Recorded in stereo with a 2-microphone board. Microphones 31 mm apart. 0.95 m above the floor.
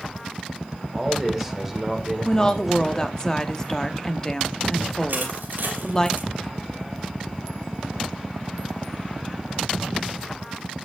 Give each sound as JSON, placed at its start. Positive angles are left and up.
{"t": 0.9, "sound": "a man speaking", "side_deg": 0, "distance_m": 3.0}
{"t": 2.2, "sound": "a woman speaking", "side_deg": 25, "distance_m": 1.4}
{"t": 5.1, "sound": "crushing", "side_deg": -70, "distance_m": 4.5}